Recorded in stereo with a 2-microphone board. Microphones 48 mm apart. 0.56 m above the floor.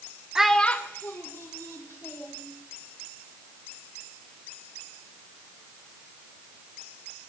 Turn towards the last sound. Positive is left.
turn(degrees=75)  # may be behind; listen again after turning